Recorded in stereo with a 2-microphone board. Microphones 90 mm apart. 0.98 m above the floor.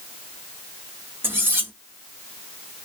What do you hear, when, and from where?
1.2 s cutlery clinking: 25° right (ahead or behind), 1.1 m